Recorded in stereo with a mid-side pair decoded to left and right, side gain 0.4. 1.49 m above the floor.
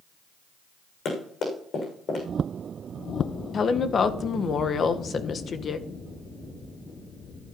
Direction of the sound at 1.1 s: 70° left.